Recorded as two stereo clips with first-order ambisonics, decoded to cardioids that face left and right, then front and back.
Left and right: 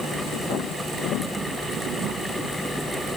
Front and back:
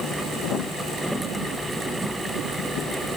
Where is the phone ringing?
I don't hear a phone ringing.